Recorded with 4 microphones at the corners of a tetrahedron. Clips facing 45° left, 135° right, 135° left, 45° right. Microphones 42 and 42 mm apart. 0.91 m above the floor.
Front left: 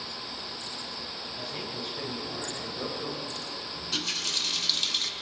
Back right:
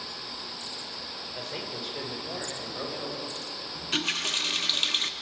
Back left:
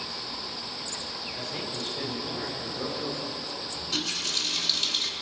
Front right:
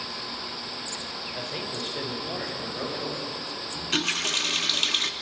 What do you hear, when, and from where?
1.4 s a man speaking: 110° right, 3.5 m; by 3.4 s 95° right, 6 m
3.8 s a running tap: 85° right, 0.8 m